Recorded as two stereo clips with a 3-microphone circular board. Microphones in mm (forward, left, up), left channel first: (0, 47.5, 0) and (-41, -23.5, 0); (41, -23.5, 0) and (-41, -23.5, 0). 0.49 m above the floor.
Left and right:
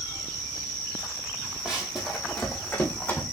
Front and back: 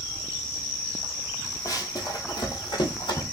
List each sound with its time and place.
1.6 s running footsteps: 45° right, 1.1 m; by 3.2 s 5° right, 1.6 m